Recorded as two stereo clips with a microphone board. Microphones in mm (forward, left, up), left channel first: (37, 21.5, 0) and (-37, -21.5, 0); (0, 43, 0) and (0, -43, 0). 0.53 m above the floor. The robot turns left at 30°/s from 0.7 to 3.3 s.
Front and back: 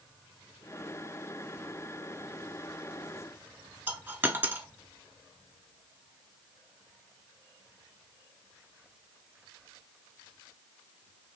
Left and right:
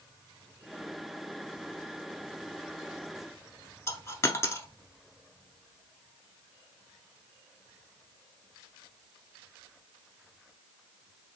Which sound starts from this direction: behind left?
A dropped coin, at 3.9 s.